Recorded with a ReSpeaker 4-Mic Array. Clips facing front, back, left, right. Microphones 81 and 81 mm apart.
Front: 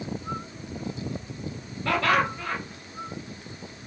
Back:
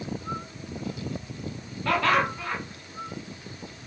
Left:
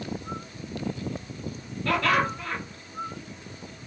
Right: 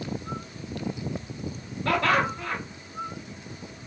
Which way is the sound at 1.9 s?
90° right.